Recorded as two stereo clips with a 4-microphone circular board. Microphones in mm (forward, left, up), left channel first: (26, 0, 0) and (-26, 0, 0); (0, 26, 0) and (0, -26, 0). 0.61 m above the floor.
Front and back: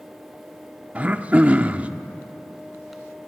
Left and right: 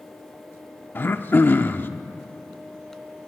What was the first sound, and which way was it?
Throat clearing, 125° left.